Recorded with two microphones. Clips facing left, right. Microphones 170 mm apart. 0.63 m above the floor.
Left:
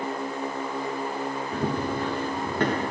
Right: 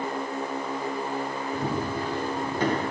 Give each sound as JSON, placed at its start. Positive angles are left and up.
{"t": 1.5, "sound": "running footsteps", "side_deg": 70, "distance_m": 3.5}